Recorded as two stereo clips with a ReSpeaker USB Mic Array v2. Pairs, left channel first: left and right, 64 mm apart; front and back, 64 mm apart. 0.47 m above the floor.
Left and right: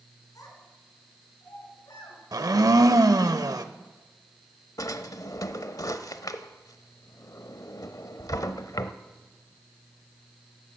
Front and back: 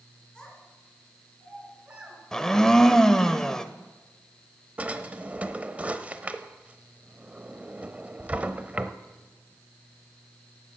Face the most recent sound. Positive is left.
turn(degrees=110)